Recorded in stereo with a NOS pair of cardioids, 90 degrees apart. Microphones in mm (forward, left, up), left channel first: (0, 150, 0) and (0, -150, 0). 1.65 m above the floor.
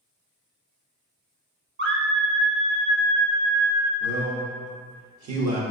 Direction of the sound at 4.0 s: 70° right.